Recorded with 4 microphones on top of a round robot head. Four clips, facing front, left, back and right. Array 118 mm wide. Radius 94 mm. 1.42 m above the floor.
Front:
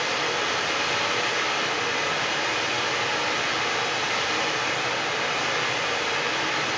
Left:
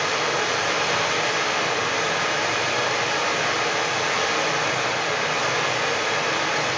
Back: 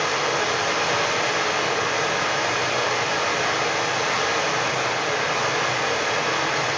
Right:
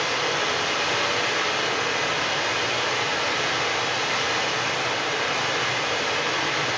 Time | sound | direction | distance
0.0 | running water | 140° left | 2.0 m